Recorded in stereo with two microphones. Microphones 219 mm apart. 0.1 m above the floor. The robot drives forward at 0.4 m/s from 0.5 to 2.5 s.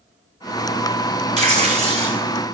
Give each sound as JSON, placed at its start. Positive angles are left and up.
{"t": 1.4, "sound": "tearing paper", "side_deg": -30, "distance_m": 1.9}